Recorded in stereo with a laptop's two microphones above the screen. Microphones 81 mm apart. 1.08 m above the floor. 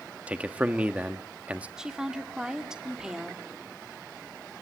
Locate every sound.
0.3 s a man speaking: 15° right (ahead or behind), 1.5 m
1.8 s a woman speaking: 5° right (ahead or behind), 2.5 m